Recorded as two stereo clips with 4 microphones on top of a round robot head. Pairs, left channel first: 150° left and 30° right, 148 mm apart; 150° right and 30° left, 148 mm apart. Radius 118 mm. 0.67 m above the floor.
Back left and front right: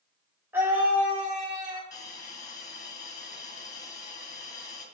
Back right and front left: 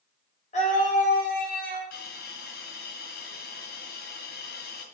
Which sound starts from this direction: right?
A scream, at 0.5 s.